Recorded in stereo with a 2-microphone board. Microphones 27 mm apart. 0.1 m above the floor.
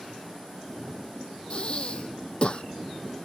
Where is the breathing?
45° left (ahead or behind).